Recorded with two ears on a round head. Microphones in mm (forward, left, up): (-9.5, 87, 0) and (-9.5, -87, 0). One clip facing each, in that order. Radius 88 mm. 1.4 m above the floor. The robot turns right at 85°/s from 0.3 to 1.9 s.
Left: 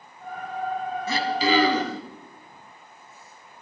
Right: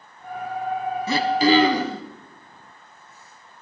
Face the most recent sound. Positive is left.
turn(degrees=0)